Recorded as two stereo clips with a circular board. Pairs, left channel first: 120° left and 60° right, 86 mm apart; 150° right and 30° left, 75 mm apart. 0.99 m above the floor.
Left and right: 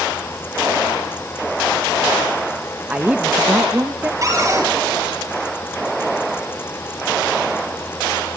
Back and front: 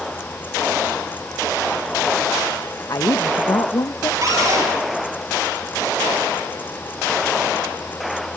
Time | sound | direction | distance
2.9 | a woman speaking | 125° right | 0.8 m
4.2 | a cupboard door | 10° right | 7.5 m